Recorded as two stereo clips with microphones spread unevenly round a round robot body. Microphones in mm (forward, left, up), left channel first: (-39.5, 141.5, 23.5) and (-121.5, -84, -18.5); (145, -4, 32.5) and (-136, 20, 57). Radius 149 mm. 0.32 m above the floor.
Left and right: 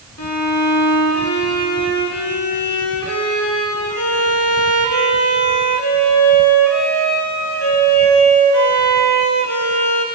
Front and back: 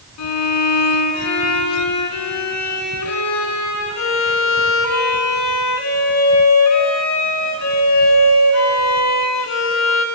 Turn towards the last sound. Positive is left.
turn(degrees=25)